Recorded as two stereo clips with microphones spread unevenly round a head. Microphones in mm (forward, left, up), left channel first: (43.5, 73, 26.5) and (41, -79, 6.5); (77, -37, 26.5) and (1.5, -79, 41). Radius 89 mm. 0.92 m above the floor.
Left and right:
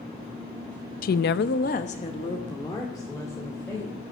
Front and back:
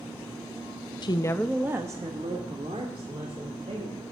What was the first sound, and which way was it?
A woman speaking, 60° left.